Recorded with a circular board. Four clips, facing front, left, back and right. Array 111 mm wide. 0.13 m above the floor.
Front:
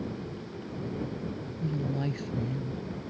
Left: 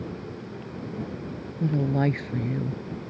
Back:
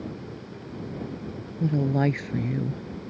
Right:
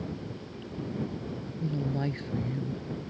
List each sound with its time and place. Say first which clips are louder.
1.6 s a woman speaking: left 8 dB, back 9 dB; 140° left; by 3.1 s 155° left